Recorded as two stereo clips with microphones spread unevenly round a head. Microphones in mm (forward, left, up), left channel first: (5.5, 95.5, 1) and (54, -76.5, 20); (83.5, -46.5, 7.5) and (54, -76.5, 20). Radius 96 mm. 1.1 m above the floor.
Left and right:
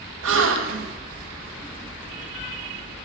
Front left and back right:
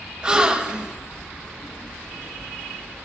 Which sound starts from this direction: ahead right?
A gasp, at 0.2 s.